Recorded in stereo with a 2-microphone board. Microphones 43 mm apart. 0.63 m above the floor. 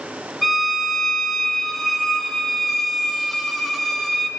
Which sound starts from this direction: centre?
A violin, at 0.4 s.